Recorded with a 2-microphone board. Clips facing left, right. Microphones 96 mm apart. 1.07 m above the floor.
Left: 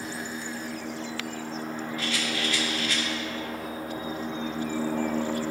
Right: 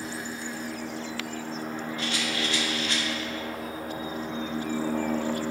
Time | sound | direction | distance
2.0 | a rattle | 25° right (ahead or behind) | 2.0 m